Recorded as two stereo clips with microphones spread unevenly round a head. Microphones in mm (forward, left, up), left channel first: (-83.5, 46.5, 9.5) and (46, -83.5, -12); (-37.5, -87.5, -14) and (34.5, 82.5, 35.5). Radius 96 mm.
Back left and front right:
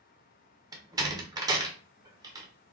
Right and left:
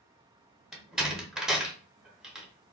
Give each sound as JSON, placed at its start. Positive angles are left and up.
{"t": 0.7, "sound": "a door slam", "azimuth_deg": 15, "distance_m": 0.6}